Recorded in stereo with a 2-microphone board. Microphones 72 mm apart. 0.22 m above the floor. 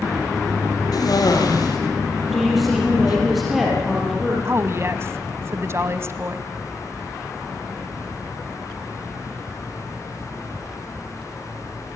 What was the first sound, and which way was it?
A cough, 60° left (ahead or behind).